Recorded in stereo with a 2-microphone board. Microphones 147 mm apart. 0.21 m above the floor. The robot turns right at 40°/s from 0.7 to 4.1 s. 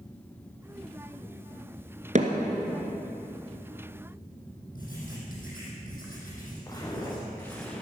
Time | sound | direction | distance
2.1 | hammering | 55° right (ahead or behind) | 1.7 m
4.8 | writing | 75° left (ahead or behind) | 6 m
6.7 | footsteps | 25° left (ahead or behind) | 3.5 m